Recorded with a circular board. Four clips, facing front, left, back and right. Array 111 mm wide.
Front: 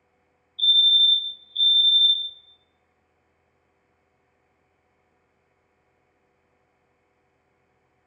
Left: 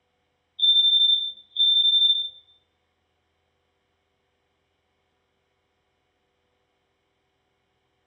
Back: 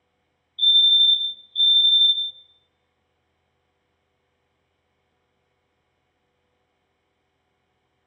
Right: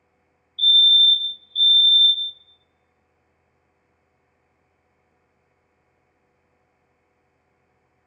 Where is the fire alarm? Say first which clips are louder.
Right 5 dB, back 1 dB; 115° right, 1.0 m.